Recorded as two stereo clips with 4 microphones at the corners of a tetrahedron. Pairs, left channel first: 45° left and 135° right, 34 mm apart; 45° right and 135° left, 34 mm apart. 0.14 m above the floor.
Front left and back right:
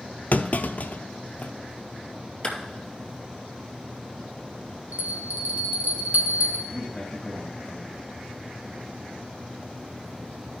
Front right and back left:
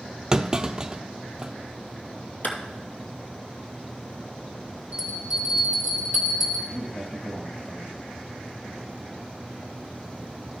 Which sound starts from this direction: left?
A clunk, at 0.3 s.